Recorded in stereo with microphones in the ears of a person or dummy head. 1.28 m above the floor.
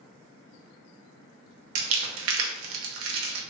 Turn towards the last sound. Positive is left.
turn(degrees=-70)  # may be behind; listen again after turning